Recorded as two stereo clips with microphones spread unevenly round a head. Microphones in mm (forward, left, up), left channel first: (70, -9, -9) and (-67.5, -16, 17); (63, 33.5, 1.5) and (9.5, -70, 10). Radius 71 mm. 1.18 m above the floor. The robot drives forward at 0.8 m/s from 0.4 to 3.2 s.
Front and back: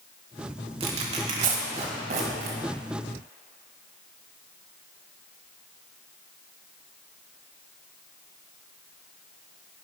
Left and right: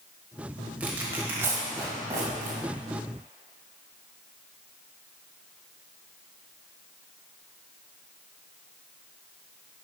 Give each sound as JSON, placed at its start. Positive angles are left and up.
{"t": 0.8, "sound": "tearing paper", "azimuth_deg": 170, "distance_m": 1.2}